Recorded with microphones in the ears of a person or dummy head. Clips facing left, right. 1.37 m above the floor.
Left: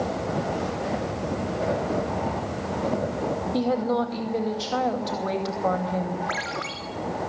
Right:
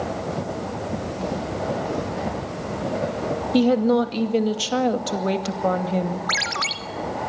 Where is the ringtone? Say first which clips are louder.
Even; 65° right (ahead or behind), 1.9 m.